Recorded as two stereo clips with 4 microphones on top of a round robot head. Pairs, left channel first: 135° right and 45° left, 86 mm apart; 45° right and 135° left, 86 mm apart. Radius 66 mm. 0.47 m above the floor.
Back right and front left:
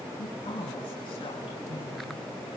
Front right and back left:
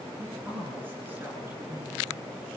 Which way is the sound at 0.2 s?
155° right.